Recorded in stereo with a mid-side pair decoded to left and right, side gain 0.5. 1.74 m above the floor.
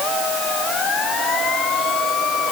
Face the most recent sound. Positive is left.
No sound to turn to.